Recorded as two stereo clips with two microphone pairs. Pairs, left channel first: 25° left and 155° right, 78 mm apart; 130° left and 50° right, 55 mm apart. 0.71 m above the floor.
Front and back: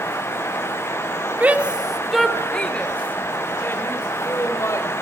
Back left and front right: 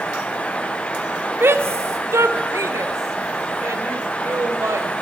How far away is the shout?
About 1.8 m.